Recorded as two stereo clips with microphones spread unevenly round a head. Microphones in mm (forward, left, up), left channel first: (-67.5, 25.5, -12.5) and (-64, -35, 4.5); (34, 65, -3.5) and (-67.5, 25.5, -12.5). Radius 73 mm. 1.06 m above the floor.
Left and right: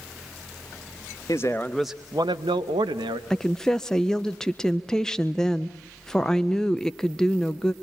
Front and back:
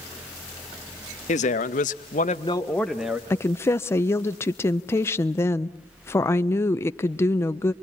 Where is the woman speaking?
70° left, 0.6 m.